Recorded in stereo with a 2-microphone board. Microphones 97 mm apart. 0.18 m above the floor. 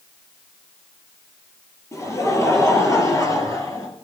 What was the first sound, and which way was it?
Laughter, 30° left (ahead or behind).